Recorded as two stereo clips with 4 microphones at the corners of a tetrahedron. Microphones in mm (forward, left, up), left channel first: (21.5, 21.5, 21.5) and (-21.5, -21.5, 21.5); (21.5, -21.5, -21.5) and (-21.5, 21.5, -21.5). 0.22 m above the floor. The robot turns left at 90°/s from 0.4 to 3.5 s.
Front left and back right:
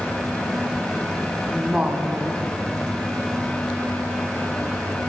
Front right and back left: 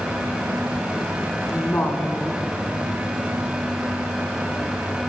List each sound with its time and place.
1.5 s a woman speaking: 45° right, 1.7 m; by 2.5 s 130° right, 1.7 m